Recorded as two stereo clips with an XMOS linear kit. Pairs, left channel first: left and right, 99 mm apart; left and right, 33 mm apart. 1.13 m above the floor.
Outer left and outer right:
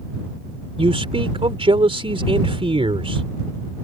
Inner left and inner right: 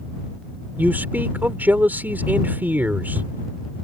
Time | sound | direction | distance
0.8 | a man speaking | 70° right (ahead or behind) | ?